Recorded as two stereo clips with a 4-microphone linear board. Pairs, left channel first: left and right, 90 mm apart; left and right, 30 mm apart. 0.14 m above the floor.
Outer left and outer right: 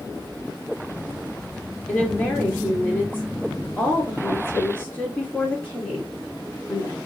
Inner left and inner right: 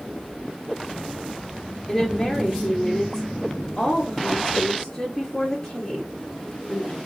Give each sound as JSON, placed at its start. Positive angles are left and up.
{"t": 1.9, "sound": "a woman speaking", "side_deg": 10, "distance_m": 1.4}